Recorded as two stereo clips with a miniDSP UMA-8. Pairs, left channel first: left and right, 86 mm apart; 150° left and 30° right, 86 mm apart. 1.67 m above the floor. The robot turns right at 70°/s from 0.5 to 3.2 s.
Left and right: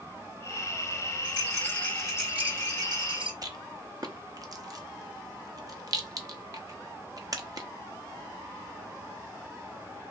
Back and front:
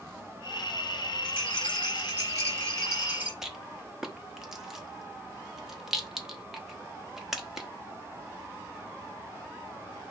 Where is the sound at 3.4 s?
115° right, 0.8 m.